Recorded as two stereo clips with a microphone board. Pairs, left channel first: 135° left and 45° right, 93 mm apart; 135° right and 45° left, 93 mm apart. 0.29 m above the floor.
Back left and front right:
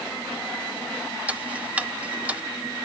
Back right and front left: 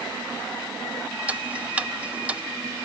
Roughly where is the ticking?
Ahead.